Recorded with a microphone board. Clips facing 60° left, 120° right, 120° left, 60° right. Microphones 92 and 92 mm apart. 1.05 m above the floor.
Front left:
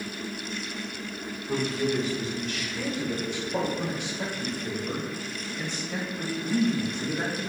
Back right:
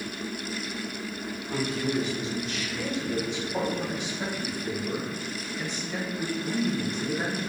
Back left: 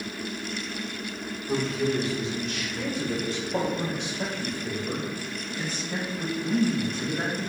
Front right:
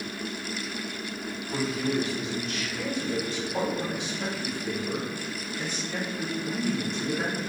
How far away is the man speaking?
About 2.5 m.